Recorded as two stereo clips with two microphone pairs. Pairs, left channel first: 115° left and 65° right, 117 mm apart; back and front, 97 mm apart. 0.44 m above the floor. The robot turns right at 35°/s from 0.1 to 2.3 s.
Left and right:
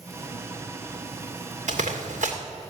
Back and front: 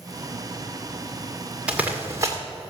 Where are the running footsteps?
85° right, 2.5 m; by 2.4 s 60° right, 2.5 m.